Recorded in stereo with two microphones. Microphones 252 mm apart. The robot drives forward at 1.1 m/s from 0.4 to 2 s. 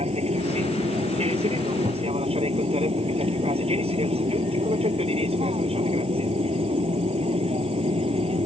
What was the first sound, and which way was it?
An aircraft, 25° right (ahead or behind).